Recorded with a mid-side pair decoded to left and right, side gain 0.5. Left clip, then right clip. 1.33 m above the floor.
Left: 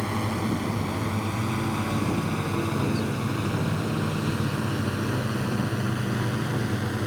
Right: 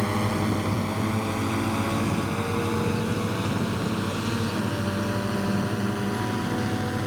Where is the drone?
15° right; by 7.1 s straight ahead.